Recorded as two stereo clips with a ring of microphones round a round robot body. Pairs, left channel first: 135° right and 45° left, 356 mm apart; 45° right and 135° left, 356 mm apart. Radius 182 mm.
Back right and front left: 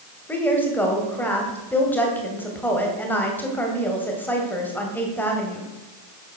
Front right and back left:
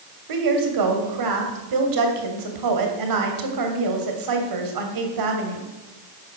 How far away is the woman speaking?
About 2.5 m.